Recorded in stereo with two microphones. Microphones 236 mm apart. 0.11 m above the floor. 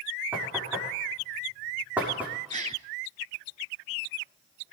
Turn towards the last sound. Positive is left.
turn(degrees=-30)  # may be behind; listen again after turning